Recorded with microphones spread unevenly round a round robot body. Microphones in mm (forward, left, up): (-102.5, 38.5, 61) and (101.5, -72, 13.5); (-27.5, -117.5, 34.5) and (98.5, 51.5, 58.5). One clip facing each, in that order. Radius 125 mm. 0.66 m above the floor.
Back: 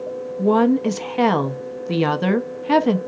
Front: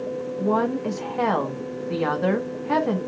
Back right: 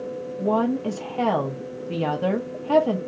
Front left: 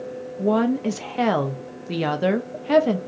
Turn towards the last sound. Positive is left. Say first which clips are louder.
# back 8 dB, front left 2 dB
turn(degrees=120)